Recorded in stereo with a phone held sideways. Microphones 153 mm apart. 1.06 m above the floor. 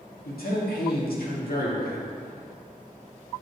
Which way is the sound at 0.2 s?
85° left.